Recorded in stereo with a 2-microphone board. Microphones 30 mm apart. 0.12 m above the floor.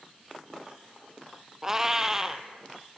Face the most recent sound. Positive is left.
turn(degrees=-15)  # may be behind; listen again after turning